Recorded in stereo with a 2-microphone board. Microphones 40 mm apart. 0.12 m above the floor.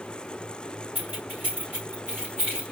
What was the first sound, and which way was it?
Keys jangling, 50° right (ahead or behind).